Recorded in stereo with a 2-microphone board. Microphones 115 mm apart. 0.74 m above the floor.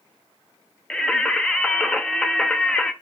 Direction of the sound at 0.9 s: 5° left (ahead or behind).